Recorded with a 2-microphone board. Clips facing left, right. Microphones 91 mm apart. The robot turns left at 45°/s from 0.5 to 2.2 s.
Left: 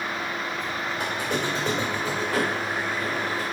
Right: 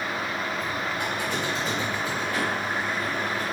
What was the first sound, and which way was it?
A squeak, 145° left.